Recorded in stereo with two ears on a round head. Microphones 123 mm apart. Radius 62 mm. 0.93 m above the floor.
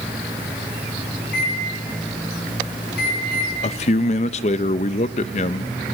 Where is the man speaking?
50° left (ahead or behind), 0.6 m.